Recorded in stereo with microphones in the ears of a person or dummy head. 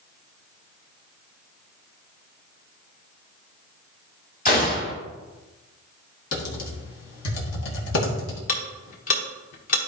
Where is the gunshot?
35° left (ahead or behind), 1.6 m.